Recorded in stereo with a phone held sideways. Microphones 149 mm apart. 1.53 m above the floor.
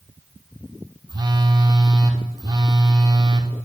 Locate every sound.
1.1 s a phone buzzing: 30° right (ahead or behind), 0.8 m